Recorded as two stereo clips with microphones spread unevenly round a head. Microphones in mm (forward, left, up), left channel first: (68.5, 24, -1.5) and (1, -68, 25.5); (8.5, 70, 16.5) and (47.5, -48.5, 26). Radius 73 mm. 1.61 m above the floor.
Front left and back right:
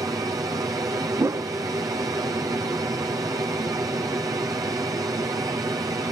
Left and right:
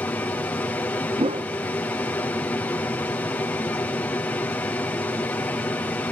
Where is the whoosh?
90° right.